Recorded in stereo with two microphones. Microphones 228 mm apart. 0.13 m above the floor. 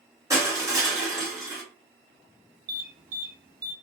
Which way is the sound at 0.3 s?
15° right (ahead or behind).